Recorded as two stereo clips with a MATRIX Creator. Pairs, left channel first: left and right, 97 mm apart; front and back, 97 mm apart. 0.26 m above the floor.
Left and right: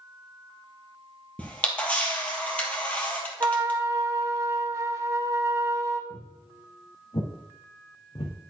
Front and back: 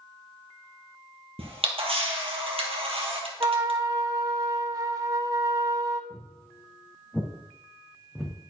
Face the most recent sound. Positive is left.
turn(degrees=100)